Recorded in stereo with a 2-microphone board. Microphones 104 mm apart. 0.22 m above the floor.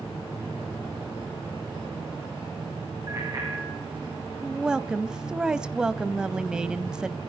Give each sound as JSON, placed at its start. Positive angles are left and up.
{"t": 3.1, "sound": "a bicycle bell", "side_deg": -35, "distance_m": 9.0}
{"t": 4.4, "sound": "a woman speaking", "side_deg": -10, "distance_m": 1.0}